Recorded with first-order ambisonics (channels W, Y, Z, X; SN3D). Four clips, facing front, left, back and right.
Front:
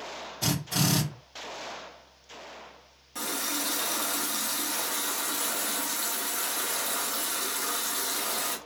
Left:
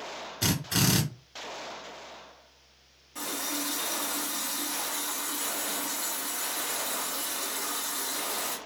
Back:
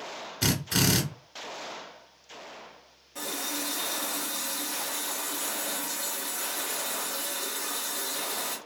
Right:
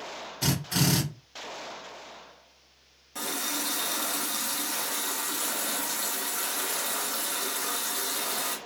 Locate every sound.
0.4 s a drill: 160° left, 1.5 m
3.1 s a running tap: 50° right, 0.9 m